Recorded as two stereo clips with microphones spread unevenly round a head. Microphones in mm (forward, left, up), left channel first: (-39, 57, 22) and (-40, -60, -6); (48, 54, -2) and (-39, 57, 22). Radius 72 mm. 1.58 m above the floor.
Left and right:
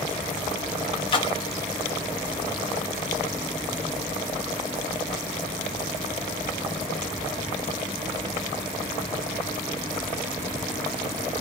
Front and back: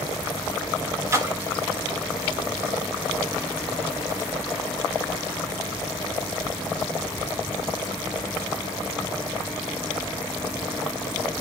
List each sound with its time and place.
1.1 s a splash: 130° left, 0.9 m